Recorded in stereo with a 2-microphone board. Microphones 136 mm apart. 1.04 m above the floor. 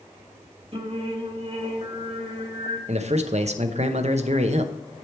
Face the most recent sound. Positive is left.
turn(degrees=-55)  # may be behind; listen again after turning